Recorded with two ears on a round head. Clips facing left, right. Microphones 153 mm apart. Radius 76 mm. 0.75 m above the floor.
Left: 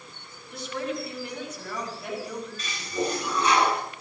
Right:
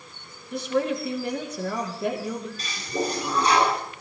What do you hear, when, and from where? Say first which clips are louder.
0.5 s a woman speaking: right 7 dB; 55° right (ahead or behind), 7.5 m
2.6 s a toilet flushing: even; 35° right (ahead or behind), 8.5 m